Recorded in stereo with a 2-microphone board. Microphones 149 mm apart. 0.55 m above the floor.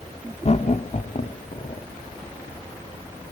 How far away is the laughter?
About 1.0 m.